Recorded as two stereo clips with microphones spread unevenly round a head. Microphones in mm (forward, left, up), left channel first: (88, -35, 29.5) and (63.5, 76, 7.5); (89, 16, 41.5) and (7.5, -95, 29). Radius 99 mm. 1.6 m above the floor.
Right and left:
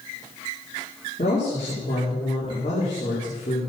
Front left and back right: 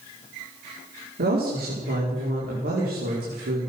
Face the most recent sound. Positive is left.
turn(degrees=-140)